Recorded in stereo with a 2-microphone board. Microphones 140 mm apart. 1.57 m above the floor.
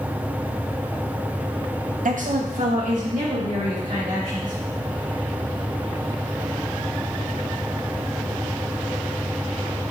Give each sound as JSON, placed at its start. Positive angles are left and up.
{"t": 2.0, "sound": "a woman speaking", "side_deg": -70, "distance_m": 0.6}